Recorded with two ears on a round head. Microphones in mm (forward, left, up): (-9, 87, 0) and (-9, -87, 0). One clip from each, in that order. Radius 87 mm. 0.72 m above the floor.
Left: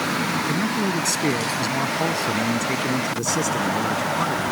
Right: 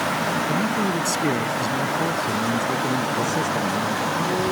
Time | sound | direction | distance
0.5 | a man speaking | centre (ahead or behind) | ?